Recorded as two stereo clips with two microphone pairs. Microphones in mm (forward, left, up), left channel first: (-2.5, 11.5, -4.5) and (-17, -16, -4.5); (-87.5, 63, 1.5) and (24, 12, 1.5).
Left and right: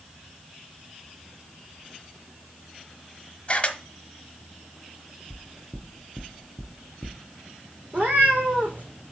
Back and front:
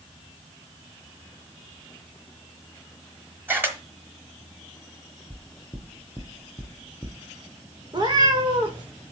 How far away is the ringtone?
No ringtone in this recording.